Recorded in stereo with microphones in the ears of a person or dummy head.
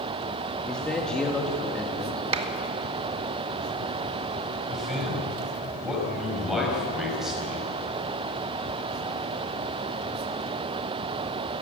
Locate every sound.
0.7 s a man speaking: 10° left (ahead or behind), 2 m
2.3 s a clap: 30° right (ahead or behind), 1.6 m
4.7 s a man speaking: centre (ahead or behind), 6 m